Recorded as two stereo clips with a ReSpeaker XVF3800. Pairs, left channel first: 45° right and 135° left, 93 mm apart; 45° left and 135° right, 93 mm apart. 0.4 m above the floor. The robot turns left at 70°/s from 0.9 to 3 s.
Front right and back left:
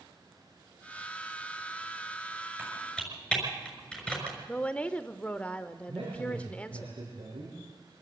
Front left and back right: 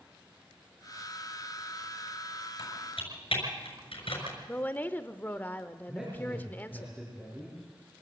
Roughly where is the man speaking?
Behind left.